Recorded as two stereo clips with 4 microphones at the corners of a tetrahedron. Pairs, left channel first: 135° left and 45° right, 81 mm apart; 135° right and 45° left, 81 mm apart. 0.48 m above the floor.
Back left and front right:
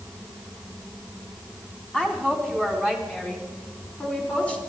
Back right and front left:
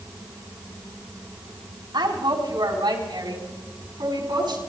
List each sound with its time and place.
1.9 s a woman speaking: 55° left, 3.5 m; by 4.6 s 60° left, 5 m